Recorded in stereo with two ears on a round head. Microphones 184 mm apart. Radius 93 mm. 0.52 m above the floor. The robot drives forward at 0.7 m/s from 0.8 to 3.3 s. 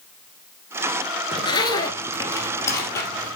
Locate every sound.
1.3 s a zipper: 25° left (ahead or behind), 1.3 m; by 3.4 s 10° left (ahead or behind), 2.5 m